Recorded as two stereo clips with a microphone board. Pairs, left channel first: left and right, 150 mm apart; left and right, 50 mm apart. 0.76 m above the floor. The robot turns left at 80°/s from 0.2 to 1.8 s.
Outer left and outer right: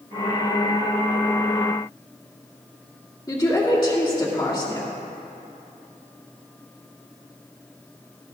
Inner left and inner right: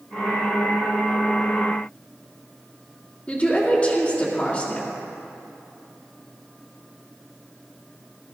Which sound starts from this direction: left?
A woman speaking, at 3.3 s.